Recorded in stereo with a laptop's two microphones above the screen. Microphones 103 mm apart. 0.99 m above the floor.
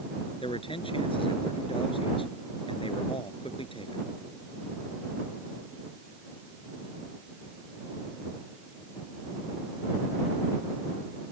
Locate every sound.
0.4 s a man speaking: 60° left (ahead or behind)